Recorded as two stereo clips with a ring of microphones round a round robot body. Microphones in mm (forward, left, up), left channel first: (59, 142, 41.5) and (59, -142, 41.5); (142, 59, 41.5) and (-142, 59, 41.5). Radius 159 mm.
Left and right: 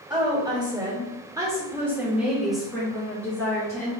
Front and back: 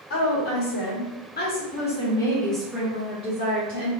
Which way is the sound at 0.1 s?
20° right.